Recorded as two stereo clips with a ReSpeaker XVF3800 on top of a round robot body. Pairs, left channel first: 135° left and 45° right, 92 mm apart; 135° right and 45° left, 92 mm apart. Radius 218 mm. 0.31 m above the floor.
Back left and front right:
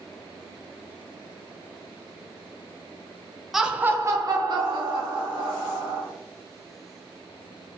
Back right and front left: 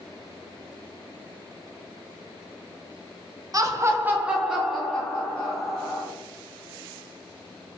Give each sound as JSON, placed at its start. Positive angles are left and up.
{"t": 3.5, "sound": "laughter", "azimuth_deg": 40, "distance_m": 1.0}